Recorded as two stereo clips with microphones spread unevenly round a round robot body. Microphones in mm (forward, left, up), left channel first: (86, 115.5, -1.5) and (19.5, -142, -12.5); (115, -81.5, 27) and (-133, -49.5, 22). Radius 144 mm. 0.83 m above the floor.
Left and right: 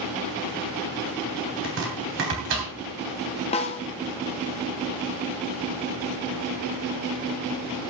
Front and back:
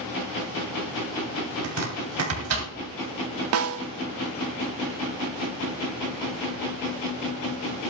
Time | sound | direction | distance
1.6 | chopping | 160° right | 3 m
3.5 | a snare drum | 145° left | 0.8 m